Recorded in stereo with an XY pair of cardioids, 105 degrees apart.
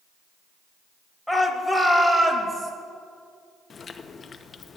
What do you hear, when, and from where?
1.3 s a shout: 5° left, 2.0 m; by 2.7 s 40° right, 2.5 m
3.7 s chewing: 40° left, 0.7 m